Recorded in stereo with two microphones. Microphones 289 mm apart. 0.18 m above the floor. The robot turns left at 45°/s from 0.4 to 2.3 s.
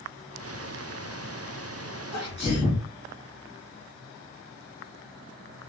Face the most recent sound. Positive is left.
turn(degrees=20)  # may be behind; listen again after turning